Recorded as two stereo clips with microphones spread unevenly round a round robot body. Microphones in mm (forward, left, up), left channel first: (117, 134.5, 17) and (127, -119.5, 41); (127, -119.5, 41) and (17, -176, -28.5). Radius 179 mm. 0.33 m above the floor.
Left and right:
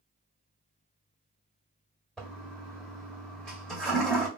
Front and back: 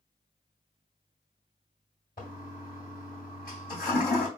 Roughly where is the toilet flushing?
Ahead.